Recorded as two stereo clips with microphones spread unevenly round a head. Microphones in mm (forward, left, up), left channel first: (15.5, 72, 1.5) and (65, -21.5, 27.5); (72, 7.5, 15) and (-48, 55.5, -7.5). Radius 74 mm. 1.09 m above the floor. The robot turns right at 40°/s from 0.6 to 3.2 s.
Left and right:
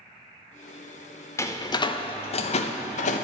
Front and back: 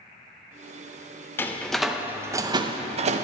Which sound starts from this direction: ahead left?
A door slam, at 1.4 s.